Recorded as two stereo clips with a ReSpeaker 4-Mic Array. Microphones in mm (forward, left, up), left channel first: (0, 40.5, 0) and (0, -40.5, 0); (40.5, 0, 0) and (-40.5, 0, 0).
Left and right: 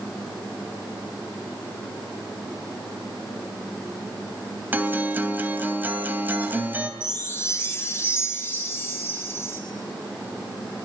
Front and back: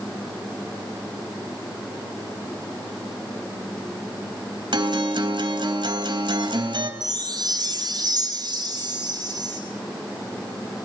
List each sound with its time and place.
4.7 s a guitar: 160° right, 3 m
7.0 s a chime: 150° left, 4.5 m